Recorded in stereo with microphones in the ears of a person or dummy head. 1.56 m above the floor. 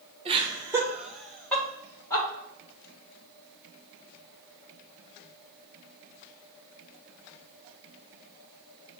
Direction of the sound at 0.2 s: 30° right (ahead or behind).